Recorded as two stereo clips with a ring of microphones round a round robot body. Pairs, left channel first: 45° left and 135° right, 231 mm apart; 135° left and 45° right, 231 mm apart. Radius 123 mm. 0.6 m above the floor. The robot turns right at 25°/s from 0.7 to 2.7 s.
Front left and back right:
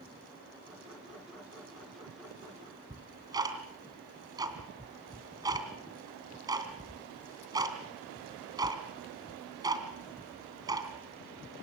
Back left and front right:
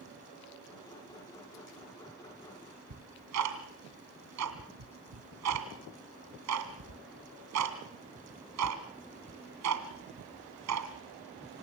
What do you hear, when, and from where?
2.9 s ticking: 60° right, 2.5 m